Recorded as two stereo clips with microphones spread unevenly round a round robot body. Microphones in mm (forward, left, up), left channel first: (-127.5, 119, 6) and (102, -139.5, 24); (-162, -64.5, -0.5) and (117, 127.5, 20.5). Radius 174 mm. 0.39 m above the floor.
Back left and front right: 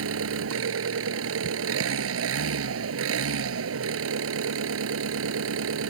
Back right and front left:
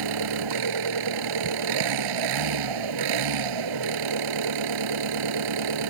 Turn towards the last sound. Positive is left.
turn(degrees=5)